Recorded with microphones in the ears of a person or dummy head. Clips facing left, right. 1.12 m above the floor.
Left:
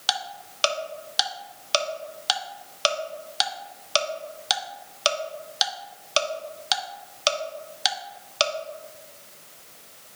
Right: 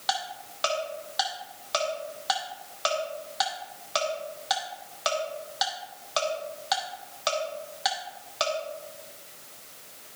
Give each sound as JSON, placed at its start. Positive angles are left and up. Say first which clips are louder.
{"t": 0.1, "sound": "ticking", "louder": "right 1 dB", "side_deg": 40, "distance_m": 0.9}